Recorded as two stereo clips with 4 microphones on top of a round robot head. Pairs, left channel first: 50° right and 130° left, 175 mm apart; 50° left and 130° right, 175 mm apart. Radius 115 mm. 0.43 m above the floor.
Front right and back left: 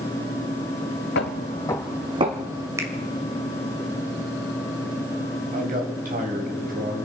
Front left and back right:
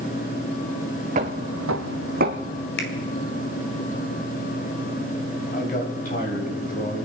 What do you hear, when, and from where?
1.1 s footsteps: 80° right, 1.1 m; by 2.7 s 175° left, 1.6 m
2.8 s a finger snap: 55° left, 2 m
5.5 s a man speaking: 90° left, 3.5 m